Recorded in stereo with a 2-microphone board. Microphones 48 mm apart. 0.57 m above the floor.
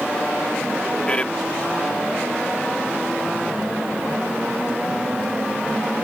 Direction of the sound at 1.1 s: 25° left (ahead or behind).